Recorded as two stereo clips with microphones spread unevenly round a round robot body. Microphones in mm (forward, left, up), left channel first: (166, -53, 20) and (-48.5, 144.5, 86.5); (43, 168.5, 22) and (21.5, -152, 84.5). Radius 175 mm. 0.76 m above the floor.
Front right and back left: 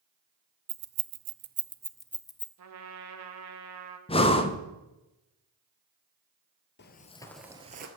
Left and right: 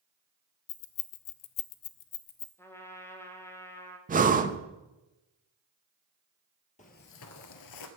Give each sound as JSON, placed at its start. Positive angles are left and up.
{"t": 0.7, "sound": "keys jangling", "azimuth_deg": 125, "distance_m": 0.8}
{"t": 2.6, "sound": "a trumpet", "azimuth_deg": 155, "distance_m": 1.3}
{"t": 4.1, "sound": "breathing", "azimuth_deg": -30, "distance_m": 0.9}
{"t": 6.8, "sound": "footsteps", "azimuth_deg": 15, "distance_m": 1.0}